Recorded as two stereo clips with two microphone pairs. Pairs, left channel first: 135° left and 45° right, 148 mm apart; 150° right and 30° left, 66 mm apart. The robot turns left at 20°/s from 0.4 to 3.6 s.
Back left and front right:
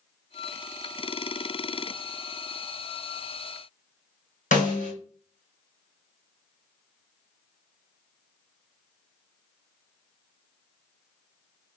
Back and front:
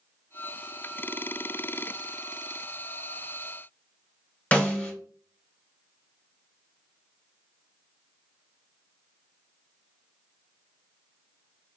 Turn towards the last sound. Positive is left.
turn(degrees=145)